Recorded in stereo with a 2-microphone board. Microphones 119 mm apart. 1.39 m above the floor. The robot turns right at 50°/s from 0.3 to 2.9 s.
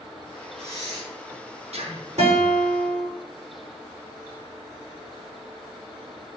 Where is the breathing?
20° right (ahead or behind), 4 m; by 2.1 s 75° right (ahead or behind), 4 m.